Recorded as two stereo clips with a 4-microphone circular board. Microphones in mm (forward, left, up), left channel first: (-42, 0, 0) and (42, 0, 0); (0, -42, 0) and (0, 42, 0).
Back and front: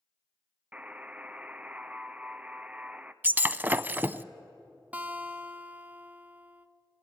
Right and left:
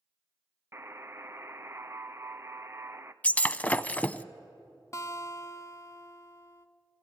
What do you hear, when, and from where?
0.7 s a buzzer: 60° left, 0.6 m
3.2 s breaking glass: 40° right, 0.5 m
4.9 s a guitar: 65° right, 0.8 m